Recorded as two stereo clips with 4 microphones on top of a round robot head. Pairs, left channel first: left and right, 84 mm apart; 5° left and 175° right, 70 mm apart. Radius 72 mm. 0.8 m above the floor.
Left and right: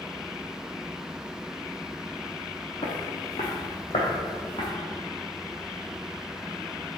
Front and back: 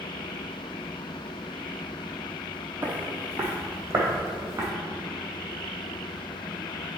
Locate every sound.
2.8 s footsteps: 120° left, 2 m; by 4.7 s 130° left, 3.5 m